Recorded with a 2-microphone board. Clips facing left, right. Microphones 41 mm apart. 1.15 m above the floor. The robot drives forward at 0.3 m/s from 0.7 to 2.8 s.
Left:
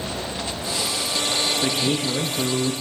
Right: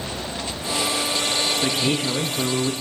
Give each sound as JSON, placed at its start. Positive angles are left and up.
{"t": 1.6, "sound": "a man speaking", "side_deg": -40, "distance_m": 0.7}